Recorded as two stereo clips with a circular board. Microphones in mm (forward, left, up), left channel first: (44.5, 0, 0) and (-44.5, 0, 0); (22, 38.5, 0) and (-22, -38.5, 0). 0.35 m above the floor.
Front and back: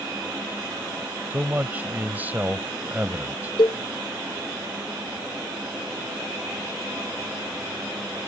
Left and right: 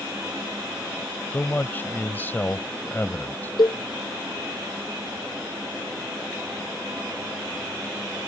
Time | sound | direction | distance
1.3 | a man speaking | 120° left | ?
3.6 | a cowbell | 25° left | ?